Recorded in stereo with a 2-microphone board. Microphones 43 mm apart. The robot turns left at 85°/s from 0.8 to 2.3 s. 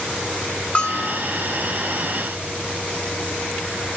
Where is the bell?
30° left (ahead or behind), 0.7 m; by 1.2 s 20° left (ahead or behind), 0.7 m.